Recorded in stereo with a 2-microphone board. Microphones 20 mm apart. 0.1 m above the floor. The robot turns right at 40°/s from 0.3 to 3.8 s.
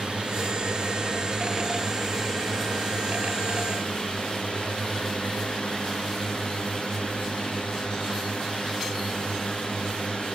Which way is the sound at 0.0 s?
75° right.